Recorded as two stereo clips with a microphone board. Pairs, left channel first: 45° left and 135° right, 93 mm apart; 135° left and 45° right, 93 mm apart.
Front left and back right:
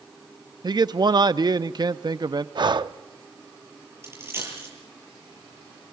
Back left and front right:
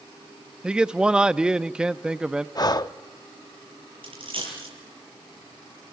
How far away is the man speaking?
About 0.5 m.